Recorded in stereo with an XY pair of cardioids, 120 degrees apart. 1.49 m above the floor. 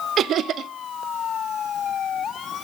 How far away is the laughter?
About 0.8 m.